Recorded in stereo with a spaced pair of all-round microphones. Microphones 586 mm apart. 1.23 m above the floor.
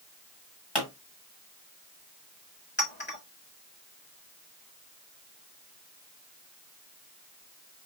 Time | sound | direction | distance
0.8 | a pop | 45° left (ahead or behind) | 1.7 m
2.8 | a clink | 20° left (ahead or behind) | 1.6 m